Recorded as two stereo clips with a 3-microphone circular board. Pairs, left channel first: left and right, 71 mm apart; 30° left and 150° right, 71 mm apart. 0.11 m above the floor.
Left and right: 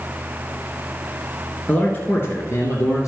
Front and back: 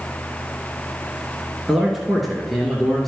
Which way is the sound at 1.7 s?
135° left.